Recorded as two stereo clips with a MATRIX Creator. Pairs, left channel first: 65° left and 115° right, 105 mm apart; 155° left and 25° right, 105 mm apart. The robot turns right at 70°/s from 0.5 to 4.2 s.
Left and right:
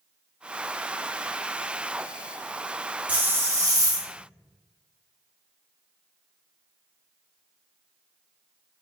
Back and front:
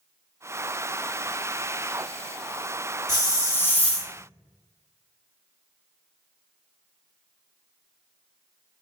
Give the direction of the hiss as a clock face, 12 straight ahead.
6 o'clock.